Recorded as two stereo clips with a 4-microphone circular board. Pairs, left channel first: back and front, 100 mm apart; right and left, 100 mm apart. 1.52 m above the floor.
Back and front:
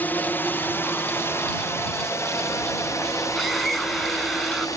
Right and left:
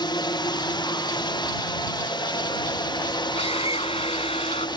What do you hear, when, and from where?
0.0 s a drone: 110° right; by 4.8 s 125° right
3.4 s a scream: 90° right